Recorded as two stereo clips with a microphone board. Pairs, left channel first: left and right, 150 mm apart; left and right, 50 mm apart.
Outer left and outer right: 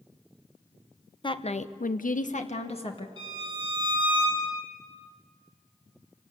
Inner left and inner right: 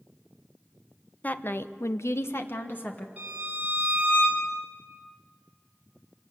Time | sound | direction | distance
1.2 | a woman speaking | 35° left (ahead or behind) | 1.1 m
3.2 | a violin | 30° right (ahead or behind) | 8.5 m